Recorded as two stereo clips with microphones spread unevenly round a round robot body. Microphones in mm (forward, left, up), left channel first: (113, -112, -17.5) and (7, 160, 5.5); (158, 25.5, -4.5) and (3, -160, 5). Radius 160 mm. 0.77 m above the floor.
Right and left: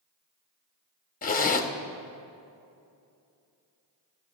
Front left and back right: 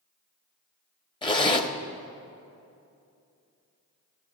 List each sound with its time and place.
1.2 s a zipper: 15° right, 1.1 m